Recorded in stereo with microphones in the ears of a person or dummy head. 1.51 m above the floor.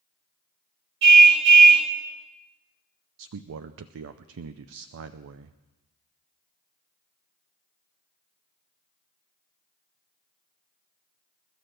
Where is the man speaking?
75° right (ahead or behind), 0.6 m.